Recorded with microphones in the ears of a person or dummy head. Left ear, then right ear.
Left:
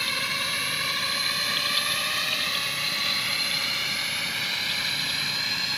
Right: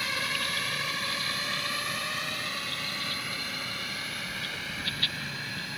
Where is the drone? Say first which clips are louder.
Left 3 dB; 5° left (ahead or behind); by 5.8 s 35° left (ahead or behind).